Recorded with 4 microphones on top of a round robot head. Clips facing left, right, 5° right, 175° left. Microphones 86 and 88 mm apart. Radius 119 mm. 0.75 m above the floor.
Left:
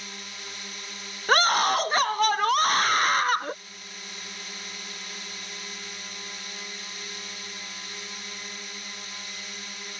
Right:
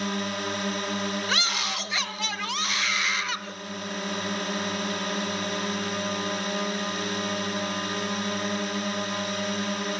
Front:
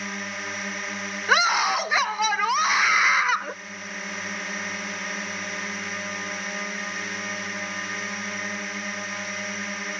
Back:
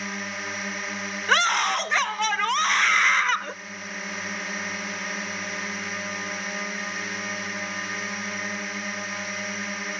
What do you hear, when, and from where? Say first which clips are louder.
0.0 s a drone: right 14 dB, even; 95° right
1.3 s a scream: left 8 dB, front 1 dB; 75° left